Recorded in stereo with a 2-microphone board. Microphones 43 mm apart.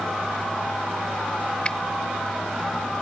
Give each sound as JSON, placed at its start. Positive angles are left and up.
{"t": 1.6, "sound": "a finger snap", "side_deg": 25}